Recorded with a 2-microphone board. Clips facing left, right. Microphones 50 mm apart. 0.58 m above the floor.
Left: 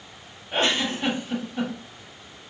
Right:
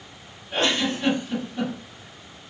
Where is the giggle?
20° left (ahead or behind), 1.6 m.